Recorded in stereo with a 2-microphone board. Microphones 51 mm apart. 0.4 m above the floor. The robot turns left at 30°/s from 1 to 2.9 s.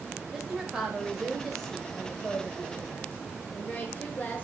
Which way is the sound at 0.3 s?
170° right.